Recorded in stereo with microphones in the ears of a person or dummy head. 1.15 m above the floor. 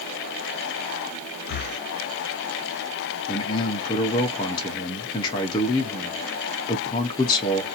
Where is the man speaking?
25° left (ahead or behind), 0.6 m.